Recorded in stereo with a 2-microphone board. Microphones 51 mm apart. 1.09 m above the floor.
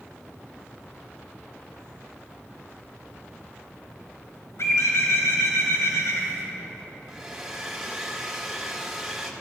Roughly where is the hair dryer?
Centre.